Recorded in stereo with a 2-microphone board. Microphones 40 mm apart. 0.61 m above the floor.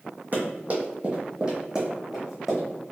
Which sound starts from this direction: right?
Running footsteps, at 0.3 s.